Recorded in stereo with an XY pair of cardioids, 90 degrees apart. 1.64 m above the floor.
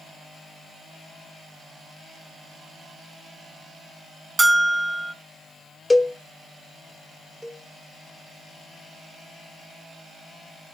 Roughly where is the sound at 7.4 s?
Ahead.